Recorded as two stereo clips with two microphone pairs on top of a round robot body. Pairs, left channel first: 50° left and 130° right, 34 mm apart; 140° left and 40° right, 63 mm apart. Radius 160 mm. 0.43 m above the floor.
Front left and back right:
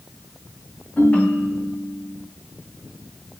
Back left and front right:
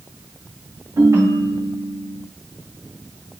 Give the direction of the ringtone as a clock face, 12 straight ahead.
12 o'clock.